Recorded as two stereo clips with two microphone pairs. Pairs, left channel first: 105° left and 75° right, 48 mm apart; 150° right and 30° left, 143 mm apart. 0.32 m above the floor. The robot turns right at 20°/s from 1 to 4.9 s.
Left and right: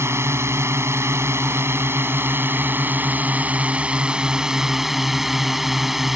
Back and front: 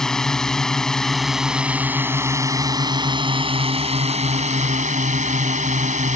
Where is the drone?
65° right; by 6.2 s 10° left.